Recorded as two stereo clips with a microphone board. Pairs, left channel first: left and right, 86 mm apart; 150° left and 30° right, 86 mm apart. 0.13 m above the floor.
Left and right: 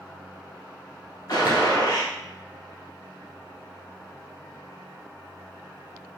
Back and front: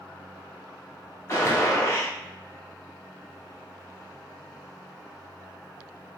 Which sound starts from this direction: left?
A gunshot, at 1.3 s.